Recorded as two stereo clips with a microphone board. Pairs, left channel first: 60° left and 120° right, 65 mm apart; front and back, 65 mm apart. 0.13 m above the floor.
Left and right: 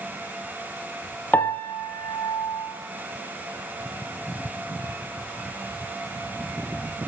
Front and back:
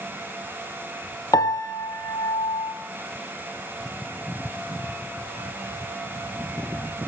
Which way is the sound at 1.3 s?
Straight ahead.